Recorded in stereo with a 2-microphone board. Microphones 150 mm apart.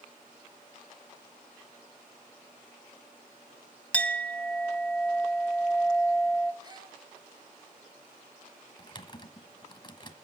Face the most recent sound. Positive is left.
turn(degrees=30)  # may be behind; listen again after turning